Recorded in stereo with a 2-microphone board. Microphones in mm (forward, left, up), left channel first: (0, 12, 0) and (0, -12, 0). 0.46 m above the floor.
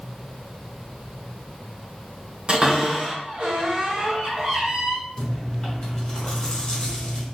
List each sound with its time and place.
2.5 s a cupboard door: 40° right (ahead or behind), 2 m
5.2 s chewing: 35° left (ahead or behind), 1.4 m